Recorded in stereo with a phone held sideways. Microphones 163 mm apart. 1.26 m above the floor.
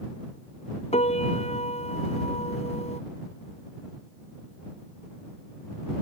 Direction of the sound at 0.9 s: 40° left (ahead or behind).